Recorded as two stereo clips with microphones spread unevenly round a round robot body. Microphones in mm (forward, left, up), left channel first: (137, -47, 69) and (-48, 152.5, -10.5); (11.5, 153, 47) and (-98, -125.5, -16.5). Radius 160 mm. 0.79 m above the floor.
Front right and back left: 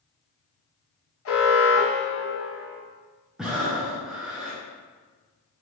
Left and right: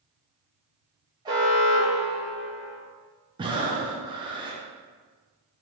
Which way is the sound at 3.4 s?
160° right.